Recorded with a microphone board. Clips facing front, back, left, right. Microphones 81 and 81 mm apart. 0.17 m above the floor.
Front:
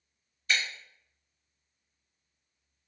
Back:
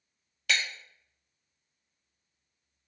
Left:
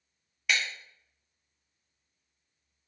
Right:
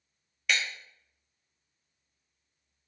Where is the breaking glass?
Straight behind, 1.1 m.